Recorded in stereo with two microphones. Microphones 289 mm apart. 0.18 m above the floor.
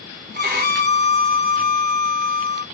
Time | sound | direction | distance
0.3 | a violin | 35° right (ahead or behind) | 1.1 m